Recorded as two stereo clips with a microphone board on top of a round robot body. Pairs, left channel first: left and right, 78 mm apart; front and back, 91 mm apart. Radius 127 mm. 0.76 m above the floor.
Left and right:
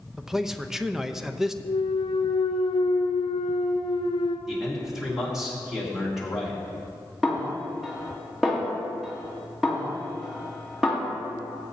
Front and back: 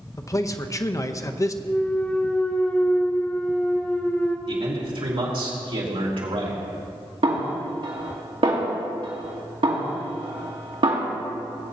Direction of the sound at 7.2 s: 175° right.